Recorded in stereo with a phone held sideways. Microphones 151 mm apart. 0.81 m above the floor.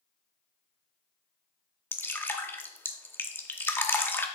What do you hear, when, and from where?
1.9 s dripping: 15° left (ahead or behind), 0.7 m